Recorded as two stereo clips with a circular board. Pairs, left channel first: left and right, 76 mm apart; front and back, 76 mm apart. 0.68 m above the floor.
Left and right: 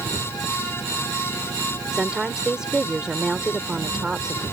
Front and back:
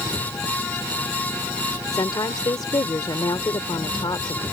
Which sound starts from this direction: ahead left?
An engine running, at 0.0 s.